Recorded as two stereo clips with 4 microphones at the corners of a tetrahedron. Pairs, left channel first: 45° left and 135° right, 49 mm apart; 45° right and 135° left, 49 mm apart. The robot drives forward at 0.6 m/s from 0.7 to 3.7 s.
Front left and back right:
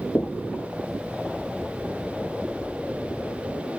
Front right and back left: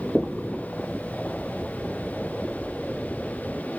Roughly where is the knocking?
Ahead left.